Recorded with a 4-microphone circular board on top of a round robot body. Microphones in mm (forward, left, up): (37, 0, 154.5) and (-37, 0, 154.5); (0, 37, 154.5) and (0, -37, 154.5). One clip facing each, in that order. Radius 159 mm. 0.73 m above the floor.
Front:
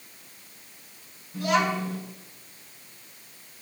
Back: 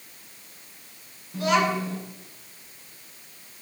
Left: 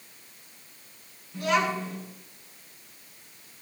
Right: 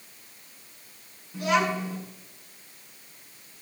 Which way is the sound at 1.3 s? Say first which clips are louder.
Back 2 dB, right 1 dB; 175° right.